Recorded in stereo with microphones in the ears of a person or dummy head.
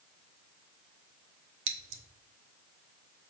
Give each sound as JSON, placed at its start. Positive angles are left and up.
{"t": 1.7, "sound": "scissors", "side_deg": -75, "distance_m": 1.3}